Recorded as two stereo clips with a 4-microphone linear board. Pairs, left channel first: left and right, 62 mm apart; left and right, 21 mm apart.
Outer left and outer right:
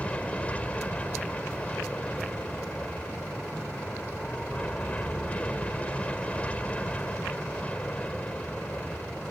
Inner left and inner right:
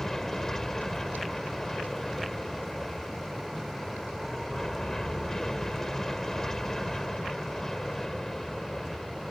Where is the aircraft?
20° left (ahead or behind).